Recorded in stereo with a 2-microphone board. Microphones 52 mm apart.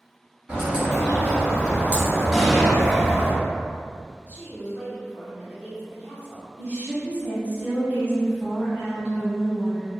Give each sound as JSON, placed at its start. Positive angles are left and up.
{"t": 0.5, "sound": "a bird", "side_deg": -25, "distance_m": 1.0}
{"t": 2.3, "sound": "an explosion", "side_deg": 5, "distance_m": 0.7}
{"t": 4.3, "sound": "a woman speaking", "side_deg": -25, "distance_m": 1.6}
{"t": 6.6, "sound": "a woman speaking", "side_deg": -25, "distance_m": 1.3}